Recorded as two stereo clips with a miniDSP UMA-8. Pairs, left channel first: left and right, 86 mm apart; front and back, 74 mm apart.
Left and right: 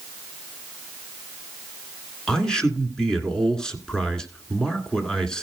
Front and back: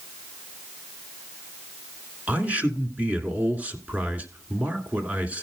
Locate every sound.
2.3 s a man speaking: 160° left, 1.5 m